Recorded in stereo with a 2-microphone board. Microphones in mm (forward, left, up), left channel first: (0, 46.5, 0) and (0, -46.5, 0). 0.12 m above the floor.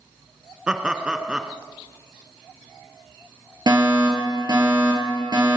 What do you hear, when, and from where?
0.7 s laughter: 10° right (ahead or behind), 1.1 m
3.7 s a fire alarm: 50° right (ahead or behind), 4.5 m